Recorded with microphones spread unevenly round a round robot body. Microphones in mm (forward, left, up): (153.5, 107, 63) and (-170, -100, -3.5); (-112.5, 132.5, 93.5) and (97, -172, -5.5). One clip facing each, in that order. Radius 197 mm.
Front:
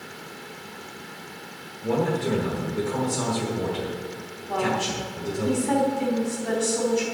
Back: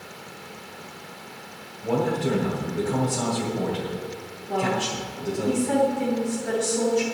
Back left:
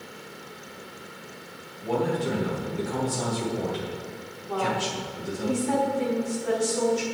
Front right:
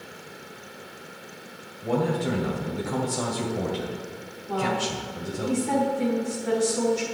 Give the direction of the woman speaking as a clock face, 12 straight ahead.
12 o'clock.